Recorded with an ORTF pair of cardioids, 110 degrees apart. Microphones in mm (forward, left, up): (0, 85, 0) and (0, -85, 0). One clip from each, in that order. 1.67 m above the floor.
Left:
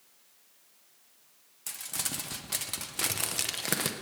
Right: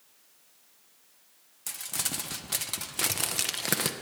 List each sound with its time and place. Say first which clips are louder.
1.7 s crumpling: right 2 dB; 5° right, 0.7 m